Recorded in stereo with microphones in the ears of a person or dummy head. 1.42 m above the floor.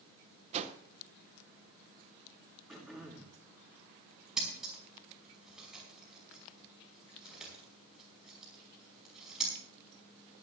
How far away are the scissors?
About 5 m.